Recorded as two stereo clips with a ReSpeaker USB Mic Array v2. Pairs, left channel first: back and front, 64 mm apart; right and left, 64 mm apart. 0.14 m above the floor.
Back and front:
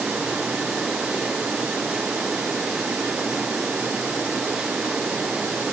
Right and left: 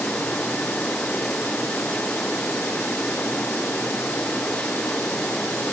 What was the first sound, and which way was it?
Only background noise.